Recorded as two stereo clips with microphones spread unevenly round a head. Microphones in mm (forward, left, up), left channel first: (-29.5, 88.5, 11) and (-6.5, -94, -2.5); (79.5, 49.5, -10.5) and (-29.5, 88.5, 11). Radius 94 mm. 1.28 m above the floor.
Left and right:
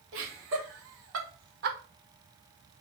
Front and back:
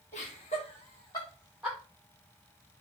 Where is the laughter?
65° right, 2 m; by 1.8 s 120° right, 1.0 m.